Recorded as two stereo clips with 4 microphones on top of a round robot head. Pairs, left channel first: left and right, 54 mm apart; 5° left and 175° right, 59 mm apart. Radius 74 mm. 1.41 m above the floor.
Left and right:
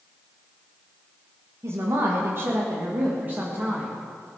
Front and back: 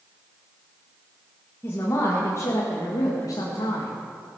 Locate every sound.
1.6 s a woman speaking: 60° right, 2 m; by 3.9 s 25° right, 2.5 m